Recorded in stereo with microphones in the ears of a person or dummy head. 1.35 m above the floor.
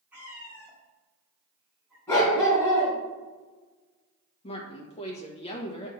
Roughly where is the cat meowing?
Centre.